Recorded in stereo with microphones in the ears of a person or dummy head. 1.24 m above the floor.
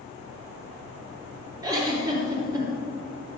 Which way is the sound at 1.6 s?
20° right (ahead or behind).